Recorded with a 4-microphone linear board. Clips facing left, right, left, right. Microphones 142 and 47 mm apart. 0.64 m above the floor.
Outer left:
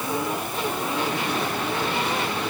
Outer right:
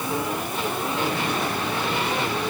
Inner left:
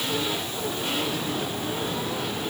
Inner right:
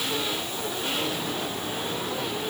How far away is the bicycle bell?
I don't hear a bicycle bell.